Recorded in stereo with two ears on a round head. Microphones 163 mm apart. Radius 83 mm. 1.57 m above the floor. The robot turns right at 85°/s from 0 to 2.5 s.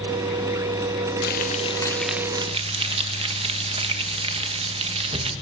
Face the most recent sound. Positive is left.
turn(degrees=-145)